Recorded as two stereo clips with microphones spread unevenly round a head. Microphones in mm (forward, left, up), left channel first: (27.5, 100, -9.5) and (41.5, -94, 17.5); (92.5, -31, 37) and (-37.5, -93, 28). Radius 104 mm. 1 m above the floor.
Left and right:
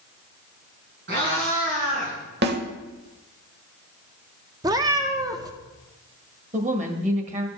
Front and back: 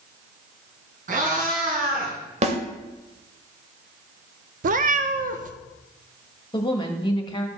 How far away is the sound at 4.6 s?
About 0.5 m.